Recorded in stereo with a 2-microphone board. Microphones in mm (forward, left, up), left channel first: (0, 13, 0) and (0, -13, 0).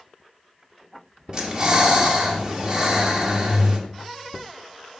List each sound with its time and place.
1.3 s breathing: 35° right (ahead or behind), 1.1 m